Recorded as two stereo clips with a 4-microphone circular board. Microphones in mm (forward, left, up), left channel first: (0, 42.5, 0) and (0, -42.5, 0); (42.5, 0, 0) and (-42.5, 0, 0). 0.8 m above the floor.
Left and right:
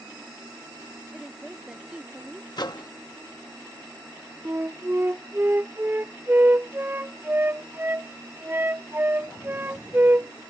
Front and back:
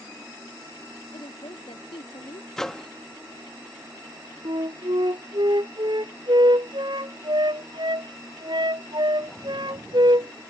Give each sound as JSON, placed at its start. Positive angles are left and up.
{"t": 1.1, "sound": "a woman speaking", "azimuth_deg": -10}
{"t": 2.6, "sound": "a microwave", "azimuth_deg": 85}
{"t": 4.5, "sound": "a flute", "azimuth_deg": -155}